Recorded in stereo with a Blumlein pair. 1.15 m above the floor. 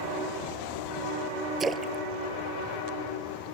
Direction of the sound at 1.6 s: 15° right.